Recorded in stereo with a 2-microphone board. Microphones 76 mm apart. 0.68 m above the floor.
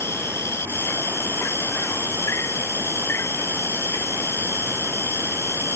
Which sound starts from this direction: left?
An insect, at 0.0 s.